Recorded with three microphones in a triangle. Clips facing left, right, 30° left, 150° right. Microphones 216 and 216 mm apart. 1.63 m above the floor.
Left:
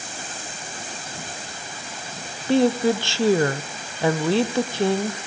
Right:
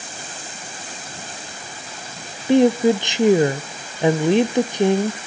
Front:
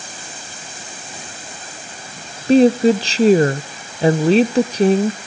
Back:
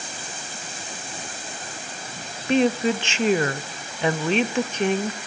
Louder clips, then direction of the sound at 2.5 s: Right 4 dB, front 9 dB; 20° right.